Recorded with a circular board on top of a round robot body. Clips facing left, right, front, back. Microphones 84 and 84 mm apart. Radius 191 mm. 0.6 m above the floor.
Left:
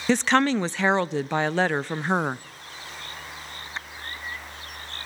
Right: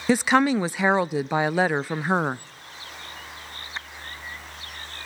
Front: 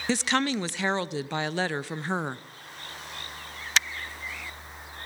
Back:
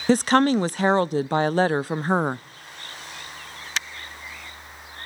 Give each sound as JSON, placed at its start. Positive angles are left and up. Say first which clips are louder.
{"t": 0.1, "sound": "a woman speaking", "louder": "right 1 dB, back 9 dB", "azimuth_deg": -165, "distance_m": 0.6}